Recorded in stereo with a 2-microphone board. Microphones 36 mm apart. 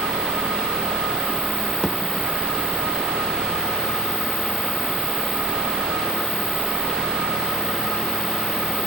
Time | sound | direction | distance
1.8 | a thud | 20° left (ahead or behind) | 0.6 m